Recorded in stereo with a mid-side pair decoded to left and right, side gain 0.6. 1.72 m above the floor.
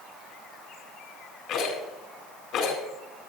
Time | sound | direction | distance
1.5 | a rattle | 65° left | 7.5 m